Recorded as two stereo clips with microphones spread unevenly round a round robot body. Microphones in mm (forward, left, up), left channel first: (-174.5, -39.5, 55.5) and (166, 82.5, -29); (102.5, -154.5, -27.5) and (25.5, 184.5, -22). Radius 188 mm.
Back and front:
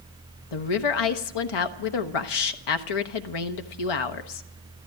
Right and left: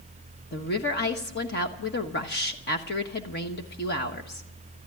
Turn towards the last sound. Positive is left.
turn(degrees=-140)